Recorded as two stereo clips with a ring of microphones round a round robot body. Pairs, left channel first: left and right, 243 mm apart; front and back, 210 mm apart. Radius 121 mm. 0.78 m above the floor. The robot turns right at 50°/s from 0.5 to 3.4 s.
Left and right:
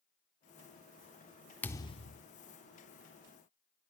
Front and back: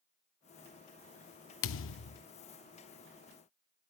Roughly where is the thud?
Ahead.